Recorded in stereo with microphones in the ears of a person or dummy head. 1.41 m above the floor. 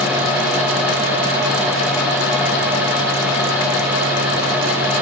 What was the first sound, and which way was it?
Only background noise.